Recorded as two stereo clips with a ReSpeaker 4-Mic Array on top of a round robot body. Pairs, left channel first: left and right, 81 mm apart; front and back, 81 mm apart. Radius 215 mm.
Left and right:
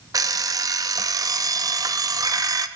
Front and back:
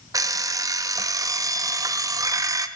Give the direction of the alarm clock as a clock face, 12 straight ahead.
4 o'clock.